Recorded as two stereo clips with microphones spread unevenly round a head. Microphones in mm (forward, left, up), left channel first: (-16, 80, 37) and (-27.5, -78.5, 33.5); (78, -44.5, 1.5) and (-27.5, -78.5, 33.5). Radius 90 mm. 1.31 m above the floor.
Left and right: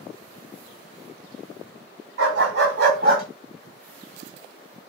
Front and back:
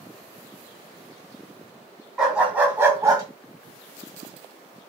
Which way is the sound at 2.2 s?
85° right.